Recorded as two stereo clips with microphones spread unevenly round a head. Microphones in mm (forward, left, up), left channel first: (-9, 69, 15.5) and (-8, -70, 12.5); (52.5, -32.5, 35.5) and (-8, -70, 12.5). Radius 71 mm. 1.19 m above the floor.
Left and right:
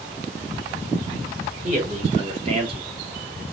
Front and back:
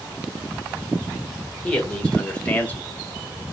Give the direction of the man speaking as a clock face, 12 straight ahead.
2 o'clock.